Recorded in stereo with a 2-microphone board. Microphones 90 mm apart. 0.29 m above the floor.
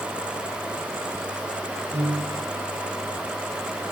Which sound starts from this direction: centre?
A piano, at 1.9 s.